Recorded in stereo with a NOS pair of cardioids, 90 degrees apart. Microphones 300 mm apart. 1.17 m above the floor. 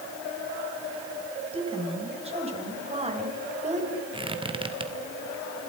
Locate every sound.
1.5 s a woman speaking: 20° right, 6 m; by 3.9 s 25° right, 4.5 m
4.1 s a squeak: 15° right, 2.5 m